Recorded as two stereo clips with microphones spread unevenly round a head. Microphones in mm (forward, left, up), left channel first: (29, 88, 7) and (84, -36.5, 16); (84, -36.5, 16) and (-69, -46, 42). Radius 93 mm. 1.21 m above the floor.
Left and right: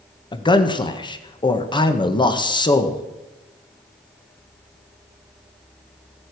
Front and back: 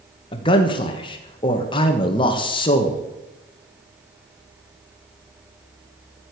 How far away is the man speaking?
About 1.5 m.